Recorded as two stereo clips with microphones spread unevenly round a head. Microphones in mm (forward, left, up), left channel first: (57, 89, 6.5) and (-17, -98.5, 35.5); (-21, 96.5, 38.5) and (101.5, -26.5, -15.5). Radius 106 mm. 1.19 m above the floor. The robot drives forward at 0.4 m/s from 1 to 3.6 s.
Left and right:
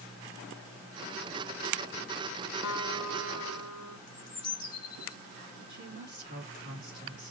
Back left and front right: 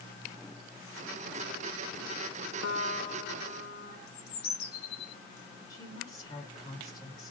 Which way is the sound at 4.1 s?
145° left.